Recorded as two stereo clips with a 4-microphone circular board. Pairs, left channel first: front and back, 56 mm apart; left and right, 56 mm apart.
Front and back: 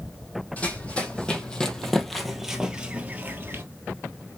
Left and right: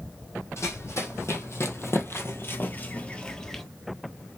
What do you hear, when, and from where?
0.6 s running footsteps: 65° left, 2 m; by 3.6 s 170° left, 1.1 m